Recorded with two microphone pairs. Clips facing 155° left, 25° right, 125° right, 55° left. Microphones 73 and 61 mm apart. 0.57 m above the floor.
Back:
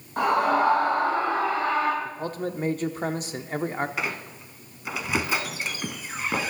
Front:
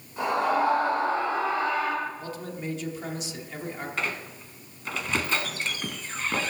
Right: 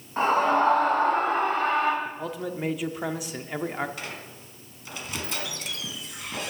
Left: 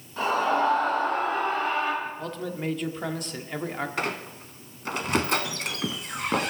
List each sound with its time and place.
0.2 s a scream: 170° right, 5 m; by 1.9 s 160° right, 4.5 m
2.0 s a man speaking: 160° left, 0.8 m
4.0 s a squeak: 75° left, 0.8 m